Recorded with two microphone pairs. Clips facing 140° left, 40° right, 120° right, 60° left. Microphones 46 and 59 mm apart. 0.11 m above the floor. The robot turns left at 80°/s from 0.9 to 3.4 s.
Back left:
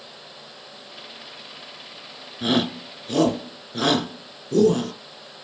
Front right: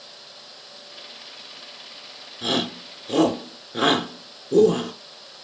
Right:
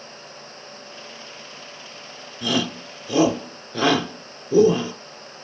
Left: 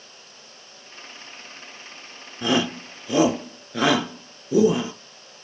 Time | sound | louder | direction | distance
2.4 | a shout | back left 3 dB, left 2 dB | 70° left | 1.1 m